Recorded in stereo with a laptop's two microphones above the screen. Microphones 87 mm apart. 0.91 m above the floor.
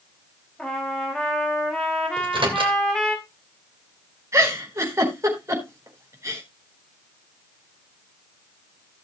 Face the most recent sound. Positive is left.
turn(degrees=-35)  # may be behind; listen again after turning